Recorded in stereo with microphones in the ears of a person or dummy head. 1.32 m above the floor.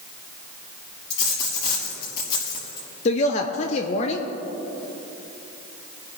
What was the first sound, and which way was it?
A dropped coin, 25° left (ahead or behind).